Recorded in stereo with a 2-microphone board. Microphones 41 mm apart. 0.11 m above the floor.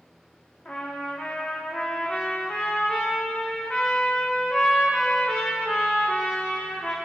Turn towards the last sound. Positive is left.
turn(degrees=30)  # may be behind; listen again after turning